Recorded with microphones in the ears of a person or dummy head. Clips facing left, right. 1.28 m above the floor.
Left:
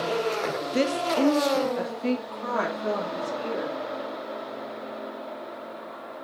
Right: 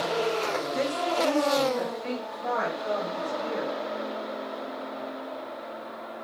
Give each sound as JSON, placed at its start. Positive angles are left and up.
{"t": 0.5, "sound": "a woman speaking", "side_deg": 30, "distance_m": 0.9}